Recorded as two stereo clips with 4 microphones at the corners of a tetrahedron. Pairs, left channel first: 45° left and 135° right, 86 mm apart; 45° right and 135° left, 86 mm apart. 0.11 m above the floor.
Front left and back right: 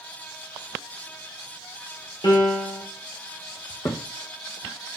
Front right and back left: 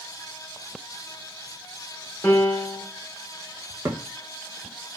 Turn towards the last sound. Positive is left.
turn(degrees=80)